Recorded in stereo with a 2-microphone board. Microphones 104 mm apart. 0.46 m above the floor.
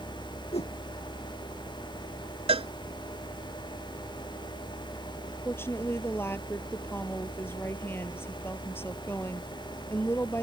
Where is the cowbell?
70° right (ahead or behind).